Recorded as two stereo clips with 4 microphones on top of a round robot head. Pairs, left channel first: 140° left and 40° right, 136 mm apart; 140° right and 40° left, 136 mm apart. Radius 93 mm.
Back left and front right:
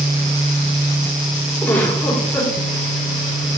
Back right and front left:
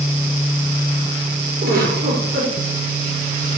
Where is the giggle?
65° left, 4.5 m.